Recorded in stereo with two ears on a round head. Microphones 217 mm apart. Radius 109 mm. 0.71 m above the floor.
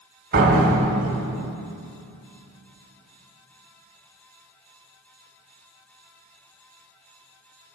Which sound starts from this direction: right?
A door slam, at 0.3 s.